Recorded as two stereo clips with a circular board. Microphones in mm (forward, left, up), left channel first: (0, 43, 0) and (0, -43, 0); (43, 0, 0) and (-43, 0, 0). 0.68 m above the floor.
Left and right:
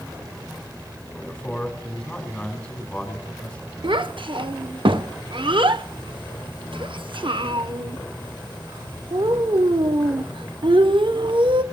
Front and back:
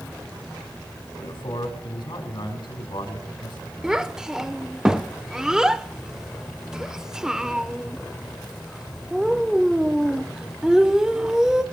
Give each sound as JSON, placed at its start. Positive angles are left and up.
{"t": 1.2, "sound": "a man speaking", "azimuth_deg": 15, "distance_m": 3.5}
{"t": 3.8, "sound": "a child speaking", "azimuth_deg": -95, "distance_m": 0.9}